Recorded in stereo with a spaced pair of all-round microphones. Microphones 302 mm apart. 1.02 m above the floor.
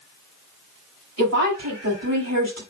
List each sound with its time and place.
1.2 s a woman speaking: 55° right (ahead or behind), 5.5 m